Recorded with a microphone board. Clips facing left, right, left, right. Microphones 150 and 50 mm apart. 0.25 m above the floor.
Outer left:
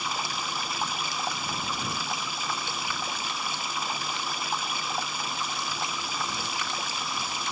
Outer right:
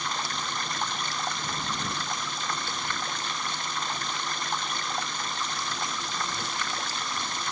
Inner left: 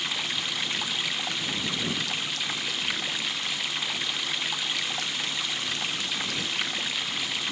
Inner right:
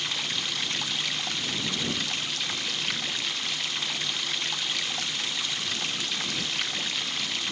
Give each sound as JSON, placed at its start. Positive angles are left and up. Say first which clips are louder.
{"t": 0.0, "sound": "running water", "louder": "even, inner left 1 dB", "side_deg": 5}